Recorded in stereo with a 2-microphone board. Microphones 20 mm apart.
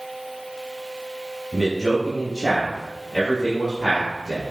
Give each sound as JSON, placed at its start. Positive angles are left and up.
{"t": 1.5, "sound": "a man speaking", "side_deg": 15, "distance_m": 1.8}